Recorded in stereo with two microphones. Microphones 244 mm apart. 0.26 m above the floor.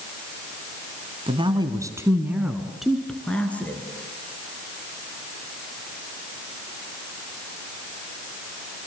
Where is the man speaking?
20° right (ahead or behind), 2 m; by 3.8 s 5° left (ahead or behind), 3.5 m.